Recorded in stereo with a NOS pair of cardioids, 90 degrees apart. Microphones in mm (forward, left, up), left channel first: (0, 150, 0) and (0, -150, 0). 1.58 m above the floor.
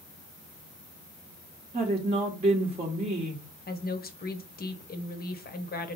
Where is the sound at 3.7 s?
30° left, 1.1 m.